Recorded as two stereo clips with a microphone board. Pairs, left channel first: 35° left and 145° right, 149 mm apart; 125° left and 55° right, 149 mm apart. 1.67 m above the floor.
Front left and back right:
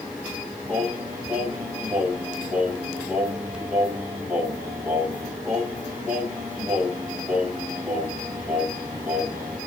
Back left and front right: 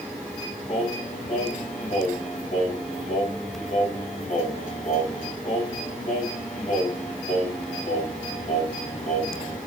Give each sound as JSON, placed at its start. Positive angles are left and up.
{"t": 0.7, "sound": "singing", "azimuth_deg": 140, "distance_m": 1.5}